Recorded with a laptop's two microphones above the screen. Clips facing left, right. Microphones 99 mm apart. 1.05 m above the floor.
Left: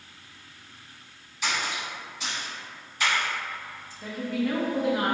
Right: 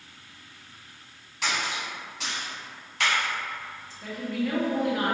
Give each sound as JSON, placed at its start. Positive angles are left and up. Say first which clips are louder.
{"t": 1.4, "sound": "a splash", "louder": "even", "side_deg": -80, "distance_m": 1.9}
{"t": 4.0, "sound": "a woman speaking", "louder": "left 1 dB", "side_deg": 5, "distance_m": 0.7}